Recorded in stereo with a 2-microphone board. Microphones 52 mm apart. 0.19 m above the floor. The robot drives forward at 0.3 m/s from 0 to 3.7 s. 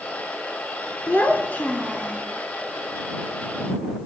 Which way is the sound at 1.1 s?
35° left (ahead or behind).